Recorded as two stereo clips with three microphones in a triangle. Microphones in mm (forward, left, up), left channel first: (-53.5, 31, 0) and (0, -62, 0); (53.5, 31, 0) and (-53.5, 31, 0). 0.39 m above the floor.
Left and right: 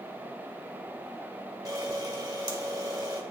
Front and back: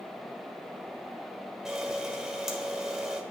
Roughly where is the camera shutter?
Right.